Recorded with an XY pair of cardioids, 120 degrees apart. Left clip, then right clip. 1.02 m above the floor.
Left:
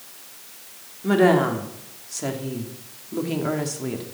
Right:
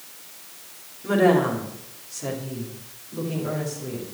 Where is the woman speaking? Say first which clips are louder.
Left 1 dB; 25° left, 3 m; by 4.0 s 65° left, 2.5 m.